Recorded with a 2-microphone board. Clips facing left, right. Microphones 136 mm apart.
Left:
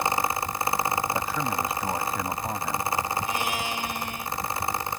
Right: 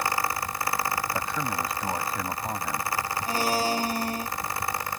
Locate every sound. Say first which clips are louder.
1.1 s a man speaking: left 2 dB; 5° left (ahead or behind)
3.3 s a blender: right 4 dB; 35° right (ahead or behind)